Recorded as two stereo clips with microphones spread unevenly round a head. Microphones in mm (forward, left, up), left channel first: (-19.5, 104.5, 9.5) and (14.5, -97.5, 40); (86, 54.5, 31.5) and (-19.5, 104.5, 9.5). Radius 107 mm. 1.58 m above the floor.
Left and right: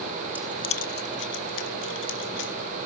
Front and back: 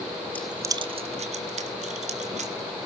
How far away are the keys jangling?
About 0.8 m.